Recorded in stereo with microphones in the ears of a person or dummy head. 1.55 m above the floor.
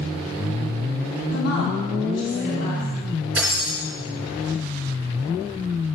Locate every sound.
1.3 s a woman speaking: 85° left, 2.5 m
3.4 s breaking glass: centre (ahead or behind), 4 m